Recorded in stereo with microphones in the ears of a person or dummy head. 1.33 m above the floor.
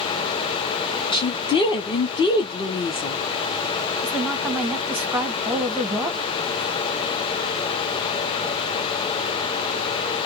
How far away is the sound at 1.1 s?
About 1.0 m.